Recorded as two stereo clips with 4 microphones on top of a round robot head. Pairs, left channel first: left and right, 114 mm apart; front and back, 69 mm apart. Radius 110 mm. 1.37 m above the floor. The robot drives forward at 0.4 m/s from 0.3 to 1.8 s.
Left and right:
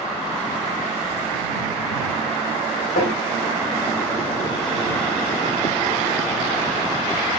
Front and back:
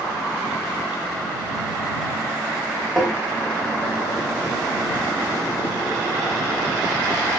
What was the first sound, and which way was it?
Tapping, 95° left.